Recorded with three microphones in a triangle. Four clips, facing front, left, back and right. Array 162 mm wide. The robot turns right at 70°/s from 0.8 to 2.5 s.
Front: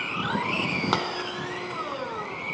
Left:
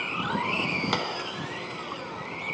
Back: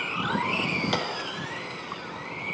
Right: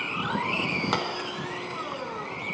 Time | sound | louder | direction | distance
0.9 | a dropped coin | right 1 dB, front 2 dB | straight ahead | 1.0 m